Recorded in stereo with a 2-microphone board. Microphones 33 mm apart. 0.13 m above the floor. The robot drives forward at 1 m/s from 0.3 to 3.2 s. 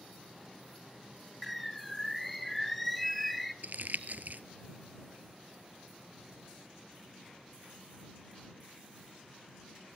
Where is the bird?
Centre (ahead or behind), 0.8 m.